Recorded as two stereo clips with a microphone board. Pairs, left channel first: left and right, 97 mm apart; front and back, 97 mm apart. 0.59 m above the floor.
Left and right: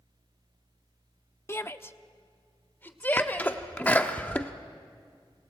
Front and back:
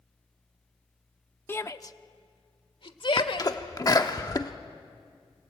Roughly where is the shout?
Ahead left.